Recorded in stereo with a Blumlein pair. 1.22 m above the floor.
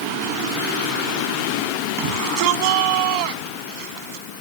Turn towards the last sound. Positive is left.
turn(degrees=-45)